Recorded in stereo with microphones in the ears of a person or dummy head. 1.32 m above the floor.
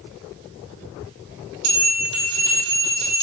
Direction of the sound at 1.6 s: 70° right (ahead or behind).